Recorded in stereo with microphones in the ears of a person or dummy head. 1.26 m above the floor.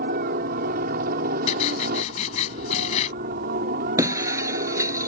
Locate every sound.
0.0 s a helicopter: 45° right (ahead or behind)
1.5 s writing: 50° left (ahead or behind)
4.0 s breaking glass: 25° right (ahead or behind)